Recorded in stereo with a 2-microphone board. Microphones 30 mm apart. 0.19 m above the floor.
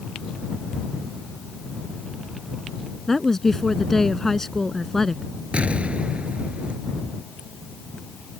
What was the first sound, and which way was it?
A woman speaking, 15° left (ahead or behind).